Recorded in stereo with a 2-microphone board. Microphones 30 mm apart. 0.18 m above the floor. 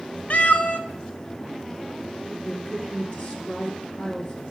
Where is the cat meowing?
60° left (ahead or behind), 0.8 m.